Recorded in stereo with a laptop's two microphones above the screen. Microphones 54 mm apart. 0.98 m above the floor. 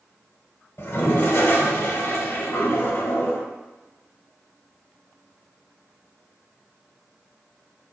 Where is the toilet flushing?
45° left (ahead or behind), 1.0 m.